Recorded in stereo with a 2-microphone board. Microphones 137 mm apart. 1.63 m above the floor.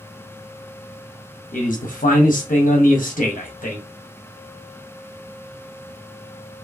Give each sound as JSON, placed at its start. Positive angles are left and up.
{"t": 1.5, "sound": "a man speaking", "side_deg": 80, "distance_m": 0.6}